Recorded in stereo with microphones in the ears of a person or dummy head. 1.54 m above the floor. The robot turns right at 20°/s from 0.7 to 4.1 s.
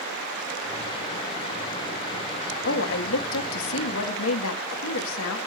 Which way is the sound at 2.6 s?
65° left (ahead or behind).